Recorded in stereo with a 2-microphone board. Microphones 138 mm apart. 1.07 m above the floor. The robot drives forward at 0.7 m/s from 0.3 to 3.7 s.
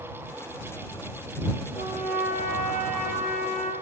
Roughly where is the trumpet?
Left.